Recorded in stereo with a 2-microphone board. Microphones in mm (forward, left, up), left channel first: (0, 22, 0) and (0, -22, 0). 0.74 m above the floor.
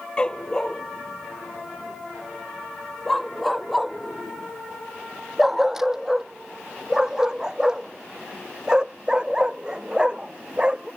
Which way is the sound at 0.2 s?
20° left (ahead or behind).